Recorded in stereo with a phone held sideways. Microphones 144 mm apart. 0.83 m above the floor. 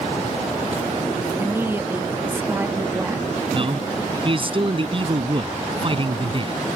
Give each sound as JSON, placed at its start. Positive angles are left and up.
{"t": 1.4, "sound": "a woman speaking", "side_deg": -15}
{"t": 3.5, "sound": "a man speaking", "side_deg": -40}